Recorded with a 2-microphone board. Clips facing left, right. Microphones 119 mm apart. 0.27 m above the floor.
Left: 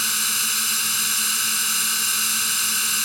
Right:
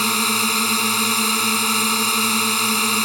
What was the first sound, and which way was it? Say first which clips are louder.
A drone: right 12 dB; 55° right (ahead or behind).